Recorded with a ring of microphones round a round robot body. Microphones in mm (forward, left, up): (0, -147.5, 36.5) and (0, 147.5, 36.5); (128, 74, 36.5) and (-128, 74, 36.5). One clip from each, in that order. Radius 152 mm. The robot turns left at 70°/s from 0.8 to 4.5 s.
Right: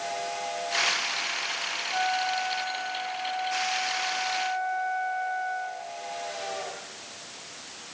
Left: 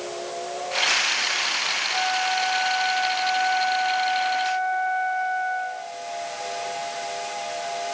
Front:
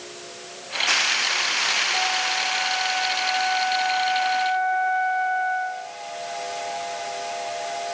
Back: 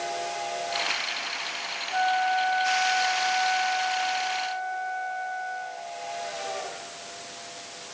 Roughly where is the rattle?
I don't hear a rattle.